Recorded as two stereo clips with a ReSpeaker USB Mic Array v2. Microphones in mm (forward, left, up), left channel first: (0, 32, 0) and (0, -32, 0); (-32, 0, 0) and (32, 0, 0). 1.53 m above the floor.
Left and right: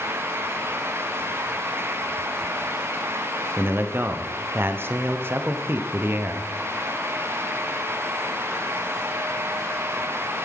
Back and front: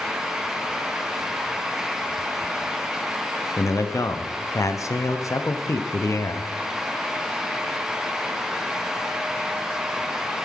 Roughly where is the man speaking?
Behind right.